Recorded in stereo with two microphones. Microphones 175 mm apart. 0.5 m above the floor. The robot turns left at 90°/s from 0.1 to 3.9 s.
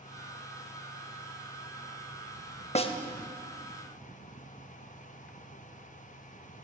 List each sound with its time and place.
2.8 s a snare drum: 40° left (ahead or behind), 0.5 m; by 2.9 s 25° left (ahead or behind), 0.5 m